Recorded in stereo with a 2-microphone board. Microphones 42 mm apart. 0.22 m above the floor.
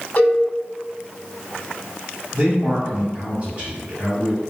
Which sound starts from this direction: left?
A cowbell, at 0.2 s.